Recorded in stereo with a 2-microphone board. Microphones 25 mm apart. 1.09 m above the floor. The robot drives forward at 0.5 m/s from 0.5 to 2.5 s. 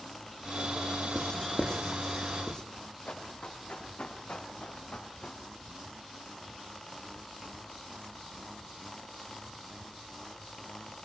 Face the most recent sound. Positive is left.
turn(degrees=60)  # may be behind; listen again after turning